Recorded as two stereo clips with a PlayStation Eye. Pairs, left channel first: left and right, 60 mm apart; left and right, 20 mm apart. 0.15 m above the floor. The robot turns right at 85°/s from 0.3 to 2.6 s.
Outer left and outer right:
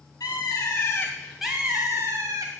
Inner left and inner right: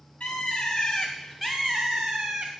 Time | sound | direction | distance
0.2 | a bird | 90° left | 2.5 m